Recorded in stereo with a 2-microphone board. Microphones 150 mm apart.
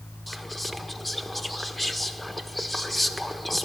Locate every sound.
0.3 s whispering: centre (ahead or behind), 1.4 m